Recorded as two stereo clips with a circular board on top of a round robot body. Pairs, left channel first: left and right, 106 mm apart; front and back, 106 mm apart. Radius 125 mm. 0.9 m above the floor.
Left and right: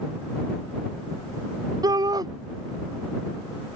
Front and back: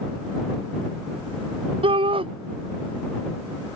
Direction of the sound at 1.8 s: 145° right.